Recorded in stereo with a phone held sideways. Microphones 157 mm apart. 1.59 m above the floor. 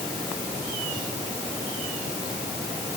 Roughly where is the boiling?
No boiling in this recording.